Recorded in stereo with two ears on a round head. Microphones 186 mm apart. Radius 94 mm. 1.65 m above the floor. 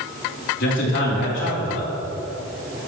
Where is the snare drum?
I don't hear a snare drum.